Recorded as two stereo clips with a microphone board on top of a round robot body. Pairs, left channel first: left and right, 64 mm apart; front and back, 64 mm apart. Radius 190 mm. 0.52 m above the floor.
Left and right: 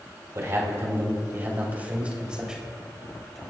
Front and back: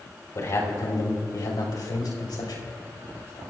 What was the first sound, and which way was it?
A man speaking, 45° right.